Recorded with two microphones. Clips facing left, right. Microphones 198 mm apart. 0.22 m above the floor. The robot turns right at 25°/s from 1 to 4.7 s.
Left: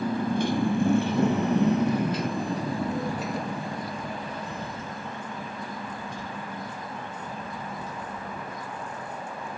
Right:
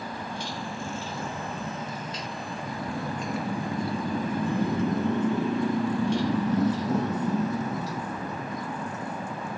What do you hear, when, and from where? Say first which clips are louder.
0.0 s a motorcycle: left 10 dB; 55° left (ahead or behind); by 9.6 s 75° right (ahead or behind)